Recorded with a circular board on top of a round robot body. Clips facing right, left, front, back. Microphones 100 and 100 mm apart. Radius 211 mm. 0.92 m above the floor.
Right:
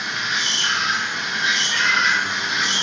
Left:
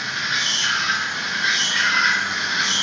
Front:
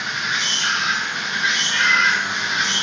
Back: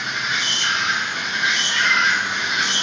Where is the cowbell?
No cowbell in this recording.